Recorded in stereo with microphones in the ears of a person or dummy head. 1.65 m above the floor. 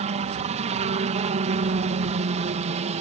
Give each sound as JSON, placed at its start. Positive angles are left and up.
{"t": 0.0, "sound": "a helicopter", "side_deg": -35}